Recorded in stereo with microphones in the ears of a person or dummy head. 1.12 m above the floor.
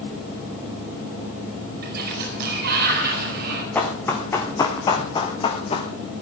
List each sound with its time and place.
1.8 s a sliding door: 55° right (ahead or behind), 4.5 m
3.8 s running footsteps: 10° left (ahead or behind), 3.5 m; by 5.9 s 35° left (ahead or behind), 2.5 m